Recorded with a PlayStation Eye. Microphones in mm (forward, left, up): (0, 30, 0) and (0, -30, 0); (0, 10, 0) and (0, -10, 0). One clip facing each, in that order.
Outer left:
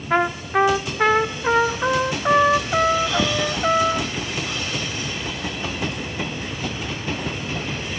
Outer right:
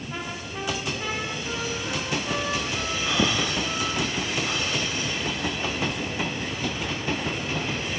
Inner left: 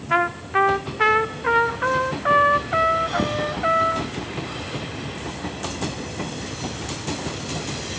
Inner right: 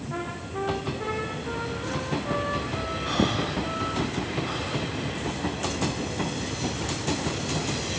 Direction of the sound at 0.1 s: 75° left (ahead or behind).